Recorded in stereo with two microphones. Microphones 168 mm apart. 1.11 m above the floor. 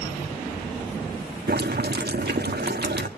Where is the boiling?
75° right (ahead or behind), 1.5 m.